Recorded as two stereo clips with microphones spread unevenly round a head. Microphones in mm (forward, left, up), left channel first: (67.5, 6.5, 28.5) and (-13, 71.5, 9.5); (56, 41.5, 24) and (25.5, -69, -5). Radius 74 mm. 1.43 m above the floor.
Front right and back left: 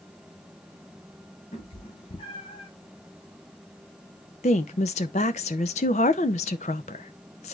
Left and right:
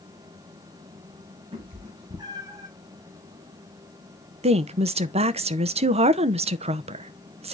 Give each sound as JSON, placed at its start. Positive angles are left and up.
{"t": 1.5, "sound": "a cat meowing", "azimuth_deg": -60, "distance_m": 3.0}
{"t": 4.4, "sound": "a woman speaking", "azimuth_deg": -70, "distance_m": 0.6}